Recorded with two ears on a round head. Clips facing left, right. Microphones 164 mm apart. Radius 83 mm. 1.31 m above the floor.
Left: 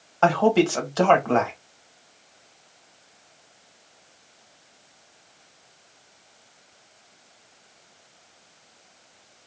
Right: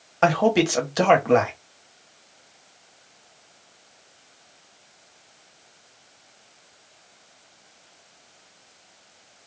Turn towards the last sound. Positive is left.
turn(degrees=-15)  # may be behind; listen again after turning